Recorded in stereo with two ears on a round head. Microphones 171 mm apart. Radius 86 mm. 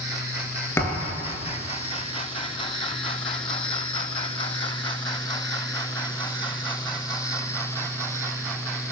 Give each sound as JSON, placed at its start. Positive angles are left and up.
{"t": 0.8, "sound": "a thud", "side_deg": 15, "distance_m": 2.5}